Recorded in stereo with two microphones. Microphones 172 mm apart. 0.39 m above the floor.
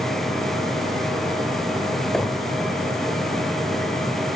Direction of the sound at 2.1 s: 5° left (ahead or behind).